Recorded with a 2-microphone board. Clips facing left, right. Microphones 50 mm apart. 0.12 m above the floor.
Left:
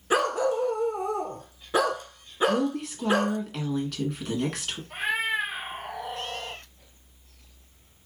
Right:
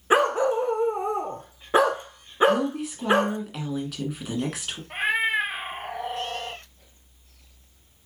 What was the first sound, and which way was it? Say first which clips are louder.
A dog barking: right 4 dB; 30° right (ahead or behind).